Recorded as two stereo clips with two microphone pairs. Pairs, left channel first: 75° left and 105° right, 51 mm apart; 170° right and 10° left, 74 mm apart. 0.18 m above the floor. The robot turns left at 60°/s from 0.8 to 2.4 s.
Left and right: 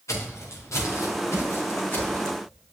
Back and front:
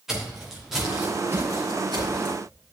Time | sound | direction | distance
0.1 | footsteps | 95° left | 3 m